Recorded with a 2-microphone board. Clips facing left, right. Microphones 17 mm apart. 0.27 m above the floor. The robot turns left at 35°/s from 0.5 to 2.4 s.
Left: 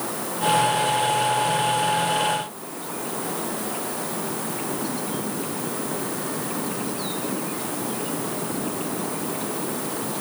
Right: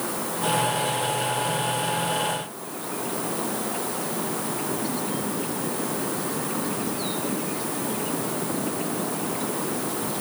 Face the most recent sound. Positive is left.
No sound to turn to.